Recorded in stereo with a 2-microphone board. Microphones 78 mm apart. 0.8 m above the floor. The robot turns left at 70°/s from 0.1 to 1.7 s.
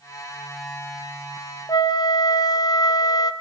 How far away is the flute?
About 0.9 m.